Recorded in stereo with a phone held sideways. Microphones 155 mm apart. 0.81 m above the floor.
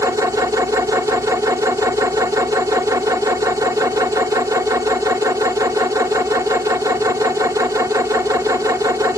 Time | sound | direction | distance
0.0 | a machine running | 20° right (ahead or behind) | 1.5 m